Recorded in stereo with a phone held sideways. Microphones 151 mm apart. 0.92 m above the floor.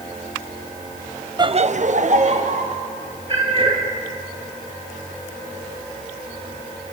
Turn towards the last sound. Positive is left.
turn(degrees=-35)  # may be behind; listen again after turning